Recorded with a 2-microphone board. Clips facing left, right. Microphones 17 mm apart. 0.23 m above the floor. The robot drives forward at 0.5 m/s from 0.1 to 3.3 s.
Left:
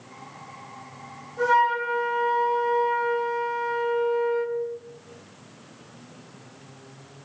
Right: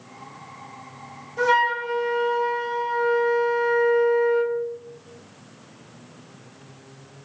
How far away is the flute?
About 1.3 m.